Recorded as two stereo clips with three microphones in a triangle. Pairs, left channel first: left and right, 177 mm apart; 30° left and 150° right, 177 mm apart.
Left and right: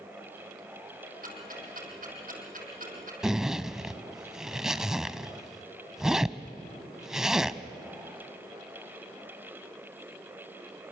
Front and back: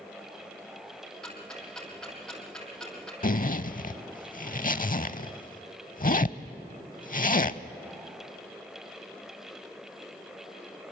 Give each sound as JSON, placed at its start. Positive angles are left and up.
{"t": 1.2, "sound": "ticking", "azimuth_deg": -55, "distance_m": 4.0}
{"t": 3.2, "sound": "a zipper", "azimuth_deg": -5, "distance_m": 0.5}